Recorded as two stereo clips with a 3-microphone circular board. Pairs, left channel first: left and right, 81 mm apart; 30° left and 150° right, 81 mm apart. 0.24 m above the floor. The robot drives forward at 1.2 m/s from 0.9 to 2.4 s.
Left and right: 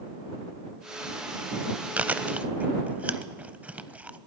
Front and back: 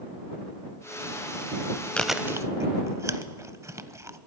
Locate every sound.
2.0 s chewing: 35° right, 0.5 m; by 4.2 s 150° right, 0.6 m